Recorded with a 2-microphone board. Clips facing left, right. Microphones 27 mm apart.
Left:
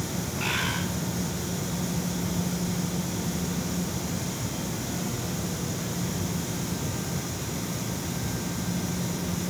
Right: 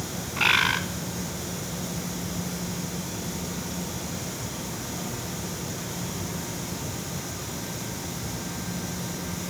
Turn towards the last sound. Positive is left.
turn(degrees=-50)  # may be behind; listen again after turning